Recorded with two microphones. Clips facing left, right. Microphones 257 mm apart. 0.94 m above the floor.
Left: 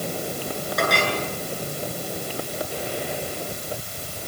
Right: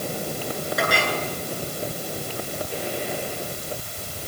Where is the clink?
5° right (ahead or behind), 8 m.